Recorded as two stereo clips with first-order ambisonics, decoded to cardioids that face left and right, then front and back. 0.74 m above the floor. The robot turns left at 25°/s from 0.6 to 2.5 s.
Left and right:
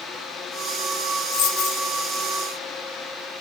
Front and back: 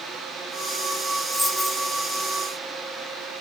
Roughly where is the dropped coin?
Left.